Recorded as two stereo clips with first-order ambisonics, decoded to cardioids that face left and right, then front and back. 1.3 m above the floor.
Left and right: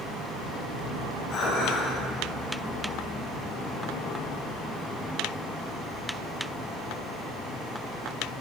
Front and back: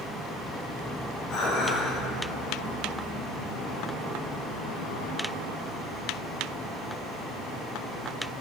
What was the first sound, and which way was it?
Dishes clattering, 40° left.